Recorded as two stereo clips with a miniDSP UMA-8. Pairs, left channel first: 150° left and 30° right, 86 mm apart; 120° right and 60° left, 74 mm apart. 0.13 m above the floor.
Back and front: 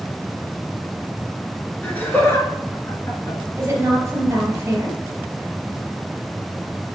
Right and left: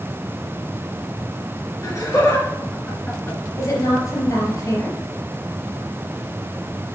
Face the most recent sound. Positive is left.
turn(degrees=-80)